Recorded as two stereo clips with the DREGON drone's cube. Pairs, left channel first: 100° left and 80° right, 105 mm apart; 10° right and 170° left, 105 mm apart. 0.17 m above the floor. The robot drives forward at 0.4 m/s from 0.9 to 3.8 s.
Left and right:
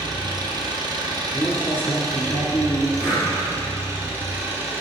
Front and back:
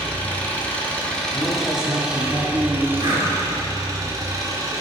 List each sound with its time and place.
0.0 s an engine running: 80° right, 1.3 m; by 4.8 s 140° right, 1.6 m
1.3 s a man speaking: 80° left, 1.6 m; by 2.9 s 135° left, 1.7 m
3.0 s breathing: 155° right, 2 m